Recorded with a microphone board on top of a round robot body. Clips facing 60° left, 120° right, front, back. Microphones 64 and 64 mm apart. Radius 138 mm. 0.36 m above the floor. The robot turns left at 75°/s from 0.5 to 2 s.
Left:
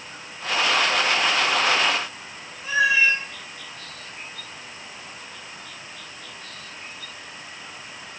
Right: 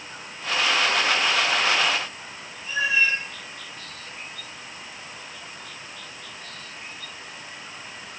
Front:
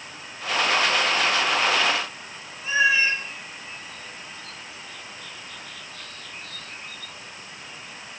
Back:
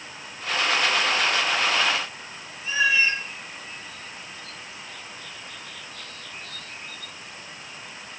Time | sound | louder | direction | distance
2.6 | a cat meowing | left 4 dB, front 2 dB | 65° left | 1.6 m